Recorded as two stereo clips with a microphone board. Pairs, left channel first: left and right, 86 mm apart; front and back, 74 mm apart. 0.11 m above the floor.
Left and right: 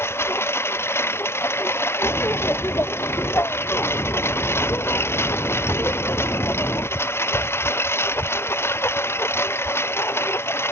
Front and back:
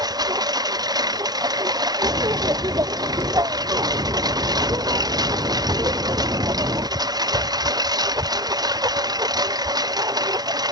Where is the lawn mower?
150° left.